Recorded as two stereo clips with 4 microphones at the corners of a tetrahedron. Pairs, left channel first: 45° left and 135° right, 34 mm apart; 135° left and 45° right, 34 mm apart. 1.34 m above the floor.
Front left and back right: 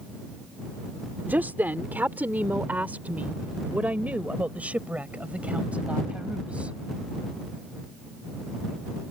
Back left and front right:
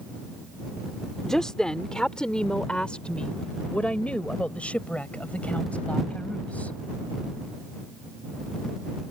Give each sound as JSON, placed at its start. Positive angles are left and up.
{"t": 1.2, "sound": "a woman speaking", "azimuth_deg": -155}